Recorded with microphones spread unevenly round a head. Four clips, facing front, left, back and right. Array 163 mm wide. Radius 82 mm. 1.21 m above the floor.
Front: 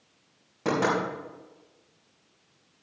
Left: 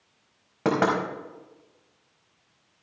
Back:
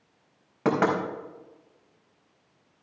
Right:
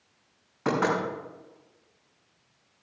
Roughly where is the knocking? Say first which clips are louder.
Left 3 dB, back 2 dB; behind left.